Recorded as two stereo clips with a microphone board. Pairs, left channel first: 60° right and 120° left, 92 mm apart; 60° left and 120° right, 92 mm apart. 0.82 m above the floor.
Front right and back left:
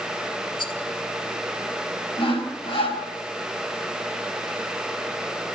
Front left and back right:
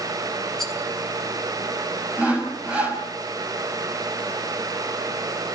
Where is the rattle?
30° right, 1.9 m.